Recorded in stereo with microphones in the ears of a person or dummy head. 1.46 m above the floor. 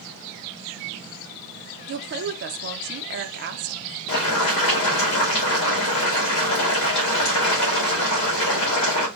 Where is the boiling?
35° left (ahead or behind), 2.5 m.